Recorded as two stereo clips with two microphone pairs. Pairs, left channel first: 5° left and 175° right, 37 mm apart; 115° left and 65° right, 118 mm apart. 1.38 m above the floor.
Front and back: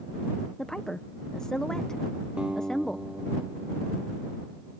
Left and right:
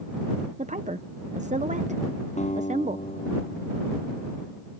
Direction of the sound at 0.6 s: 70° right.